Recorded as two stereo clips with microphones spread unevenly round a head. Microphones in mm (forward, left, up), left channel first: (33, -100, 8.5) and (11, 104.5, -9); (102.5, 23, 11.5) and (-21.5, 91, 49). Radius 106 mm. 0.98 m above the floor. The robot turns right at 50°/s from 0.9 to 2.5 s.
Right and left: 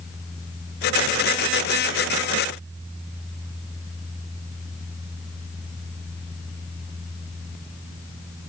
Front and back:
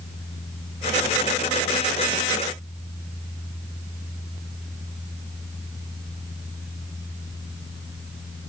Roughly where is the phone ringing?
I don't hear a phone ringing.